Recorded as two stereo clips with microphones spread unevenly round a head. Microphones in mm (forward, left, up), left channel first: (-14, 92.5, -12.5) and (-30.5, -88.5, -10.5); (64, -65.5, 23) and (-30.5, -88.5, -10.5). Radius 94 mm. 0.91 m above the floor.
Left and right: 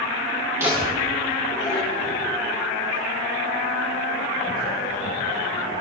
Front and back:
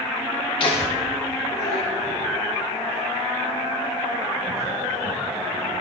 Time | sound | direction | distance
0.6 | laughter | 20° right | 2 m